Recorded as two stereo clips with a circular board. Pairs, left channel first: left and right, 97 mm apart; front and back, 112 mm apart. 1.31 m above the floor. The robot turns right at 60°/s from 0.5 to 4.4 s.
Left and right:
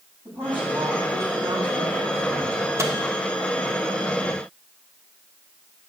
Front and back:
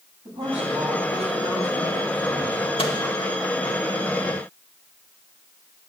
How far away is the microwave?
About 1.5 m.